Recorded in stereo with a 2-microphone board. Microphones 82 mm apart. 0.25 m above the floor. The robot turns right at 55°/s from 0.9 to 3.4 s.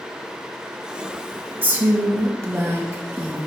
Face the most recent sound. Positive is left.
turn(degrees=-35)